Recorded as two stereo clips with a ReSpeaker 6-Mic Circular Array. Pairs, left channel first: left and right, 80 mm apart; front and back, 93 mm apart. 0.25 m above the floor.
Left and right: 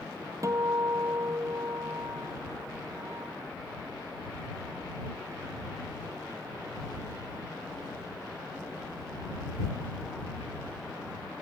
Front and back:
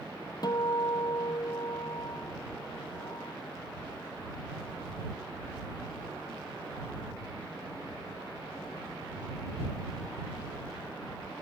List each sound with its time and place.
0.4 s a guitar: 40° right